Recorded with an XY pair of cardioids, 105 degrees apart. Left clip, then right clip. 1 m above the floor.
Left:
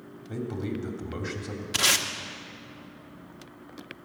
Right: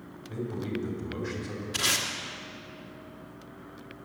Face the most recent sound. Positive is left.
turn(degrees=55)